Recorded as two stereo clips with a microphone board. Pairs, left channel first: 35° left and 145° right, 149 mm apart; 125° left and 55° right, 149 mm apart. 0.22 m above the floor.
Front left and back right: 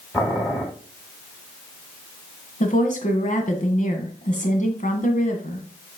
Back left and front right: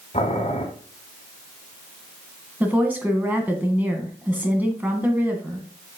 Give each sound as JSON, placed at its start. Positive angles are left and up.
{"t": 0.1, "sound": "boiling", "azimuth_deg": 110, "distance_m": 2.0}
{"t": 2.6, "sound": "a woman speaking", "azimuth_deg": 20, "distance_m": 1.8}